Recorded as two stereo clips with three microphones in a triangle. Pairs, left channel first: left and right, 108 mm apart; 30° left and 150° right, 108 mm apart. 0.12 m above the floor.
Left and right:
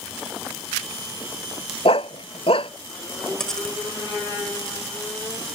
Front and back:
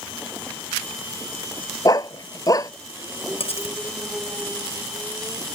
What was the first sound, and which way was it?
A dog barking, 80° left.